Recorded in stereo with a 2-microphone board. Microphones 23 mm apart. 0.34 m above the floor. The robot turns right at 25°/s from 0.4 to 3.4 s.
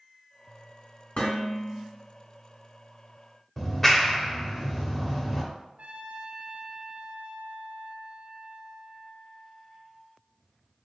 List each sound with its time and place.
1.2 s dishes clattering: 65° left (ahead or behind), 2.0 m; by 1.8 s 70° left (ahead or behind), 2.0 m
3.6 s a clap: 10° left (ahead or behind), 0.7 m
5.8 s a trumpet: 60° right (ahead or behind), 0.8 m